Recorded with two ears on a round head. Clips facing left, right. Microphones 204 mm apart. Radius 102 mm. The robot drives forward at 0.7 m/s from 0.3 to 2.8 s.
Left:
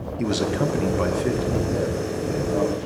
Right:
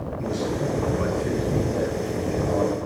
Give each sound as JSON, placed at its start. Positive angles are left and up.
{"t": 0.2, "sound": "a man speaking", "side_deg": 75, "distance_m": 0.5}